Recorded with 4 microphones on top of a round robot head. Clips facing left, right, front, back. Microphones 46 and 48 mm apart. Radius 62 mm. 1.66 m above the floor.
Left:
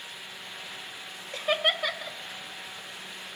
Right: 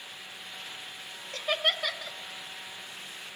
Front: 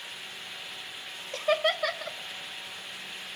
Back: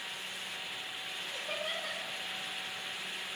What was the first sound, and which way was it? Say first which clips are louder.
Laughter: left 2 dB, front 13 dB; 10° left.